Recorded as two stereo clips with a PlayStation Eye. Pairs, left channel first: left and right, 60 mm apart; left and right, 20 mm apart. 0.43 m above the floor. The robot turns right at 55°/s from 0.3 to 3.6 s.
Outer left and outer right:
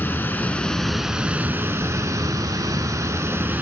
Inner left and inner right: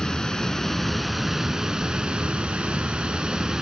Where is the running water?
145° left, 0.9 m; by 3.6 s 35° right, 0.9 m.